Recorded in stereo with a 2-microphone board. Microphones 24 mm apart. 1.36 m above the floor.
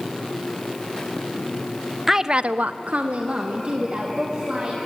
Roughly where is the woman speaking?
Centre.